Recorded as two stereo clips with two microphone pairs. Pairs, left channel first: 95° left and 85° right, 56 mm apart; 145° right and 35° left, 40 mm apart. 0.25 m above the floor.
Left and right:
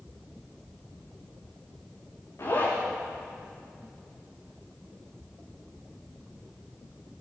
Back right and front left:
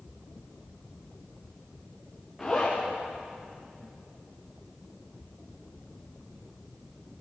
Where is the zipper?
130° left, 7.5 m.